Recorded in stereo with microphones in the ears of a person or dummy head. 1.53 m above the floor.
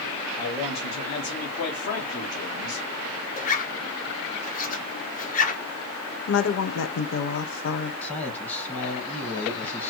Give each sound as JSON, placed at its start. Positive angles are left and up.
{"t": 0.4, "sound": "a man speaking", "side_deg": 25, "distance_m": 1.8}
{"t": 3.4, "sound": "a zipper", "side_deg": 50, "distance_m": 1.7}
{"t": 6.3, "sound": "a woman speaking", "side_deg": 65, "distance_m": 0.9}
{"t": 8.0, "sound": "a man speaking", "side_deg": 10, "distance_m": 1.5}